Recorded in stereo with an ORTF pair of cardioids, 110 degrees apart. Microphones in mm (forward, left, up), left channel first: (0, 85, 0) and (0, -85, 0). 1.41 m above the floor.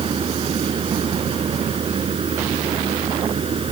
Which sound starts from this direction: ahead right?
A machine running, at 0.0 s.